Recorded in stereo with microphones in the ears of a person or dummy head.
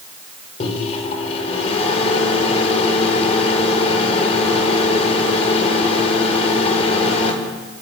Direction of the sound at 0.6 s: 40° left (ahead or behind).